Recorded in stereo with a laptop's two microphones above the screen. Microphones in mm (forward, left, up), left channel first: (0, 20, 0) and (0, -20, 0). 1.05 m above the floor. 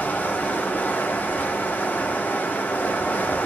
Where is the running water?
45° left (ahead or behind), 1.5 m.